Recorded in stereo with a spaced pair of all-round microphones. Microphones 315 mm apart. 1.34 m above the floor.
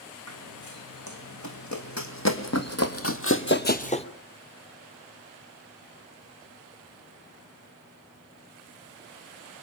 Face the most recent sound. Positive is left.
turn(degrees=15)  # may be behind; listen again after turning